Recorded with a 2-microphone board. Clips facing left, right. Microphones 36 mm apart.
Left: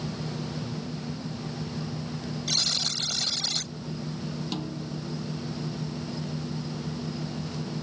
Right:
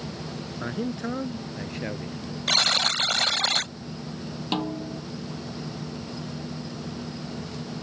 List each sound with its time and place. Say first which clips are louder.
0.6 s a man speaking: right 5 dB; 75° right (ahead or behind); by 2.4 s 80° right
2.5 s a buzzer: right 8 dB; 55° right (ahead or behind)
4.5 s a snare drum: right 5 dB; 40° right (ahead or behind)